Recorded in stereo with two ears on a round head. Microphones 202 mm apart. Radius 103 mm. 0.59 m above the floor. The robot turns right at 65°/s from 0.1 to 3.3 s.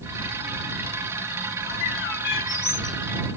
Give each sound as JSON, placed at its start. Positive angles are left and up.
{"t": 1.7, "sound": "a bird", "azimuth_deg": 80}